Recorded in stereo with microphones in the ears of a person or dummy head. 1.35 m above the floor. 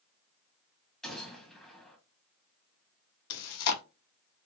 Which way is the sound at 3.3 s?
85° left.